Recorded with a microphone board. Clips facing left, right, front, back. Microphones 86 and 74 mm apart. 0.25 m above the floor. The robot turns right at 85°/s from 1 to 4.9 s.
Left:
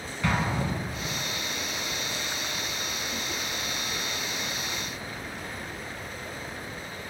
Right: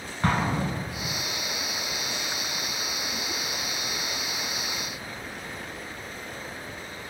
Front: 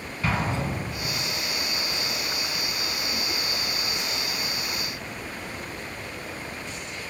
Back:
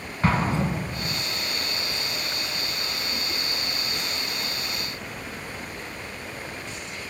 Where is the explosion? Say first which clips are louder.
Right 2 dB, back 4 dB; 135° right, 0.6 m; by 1.2 s 120° right, 0.6 m.